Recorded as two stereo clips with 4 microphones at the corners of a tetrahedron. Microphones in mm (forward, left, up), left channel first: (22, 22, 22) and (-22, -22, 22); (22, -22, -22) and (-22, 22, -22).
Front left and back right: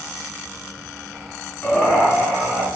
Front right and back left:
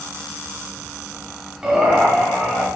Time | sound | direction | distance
1.6 | laughter | 80° left | 1.6 m